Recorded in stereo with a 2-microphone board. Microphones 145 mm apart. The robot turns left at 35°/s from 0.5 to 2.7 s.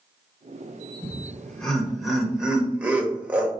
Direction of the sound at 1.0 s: 10° left (ahead or behind).